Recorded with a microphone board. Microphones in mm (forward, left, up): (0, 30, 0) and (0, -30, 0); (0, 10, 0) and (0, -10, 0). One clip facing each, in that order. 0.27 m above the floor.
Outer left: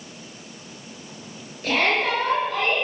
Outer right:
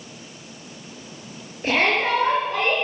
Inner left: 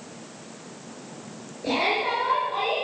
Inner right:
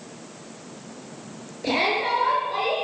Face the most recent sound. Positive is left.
turn(degrees=-30)  # may be behind; listen again after turning